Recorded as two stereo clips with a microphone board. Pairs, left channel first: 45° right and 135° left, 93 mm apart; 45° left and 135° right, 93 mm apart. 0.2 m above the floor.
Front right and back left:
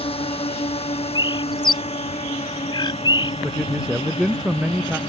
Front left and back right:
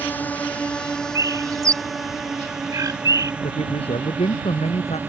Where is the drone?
25° right; by 5.1 s 65° right.